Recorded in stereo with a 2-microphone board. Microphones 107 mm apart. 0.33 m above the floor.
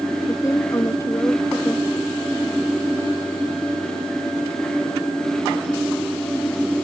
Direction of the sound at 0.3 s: 25° left (ahead or behind).